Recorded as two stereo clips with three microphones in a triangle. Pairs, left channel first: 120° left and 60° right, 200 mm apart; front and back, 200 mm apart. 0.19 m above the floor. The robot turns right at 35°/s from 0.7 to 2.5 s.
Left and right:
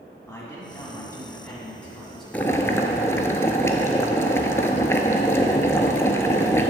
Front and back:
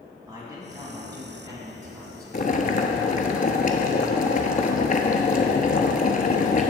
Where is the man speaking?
150° left, 1.7 m; by 2.2 s 155° right, 1.7 m.